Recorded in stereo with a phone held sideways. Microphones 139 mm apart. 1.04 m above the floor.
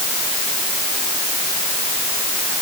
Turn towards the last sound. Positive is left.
No sound to turn to.